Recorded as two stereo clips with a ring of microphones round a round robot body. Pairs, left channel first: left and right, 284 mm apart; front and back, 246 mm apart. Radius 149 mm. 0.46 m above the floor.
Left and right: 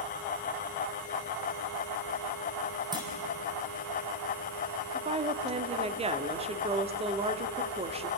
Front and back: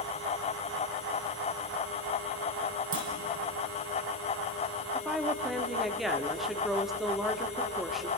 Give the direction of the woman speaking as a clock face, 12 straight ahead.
3 o'clock.